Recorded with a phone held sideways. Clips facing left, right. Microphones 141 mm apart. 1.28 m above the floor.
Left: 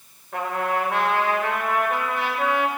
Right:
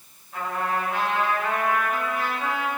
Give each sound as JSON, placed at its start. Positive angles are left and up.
{"t": 0.3, "sound": "a trumpet", "side_deg": 80, "distance_m": 4.0}